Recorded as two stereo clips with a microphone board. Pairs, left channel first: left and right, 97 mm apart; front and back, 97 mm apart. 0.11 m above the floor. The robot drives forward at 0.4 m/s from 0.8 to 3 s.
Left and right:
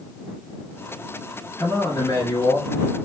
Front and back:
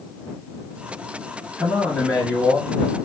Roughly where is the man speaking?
Left.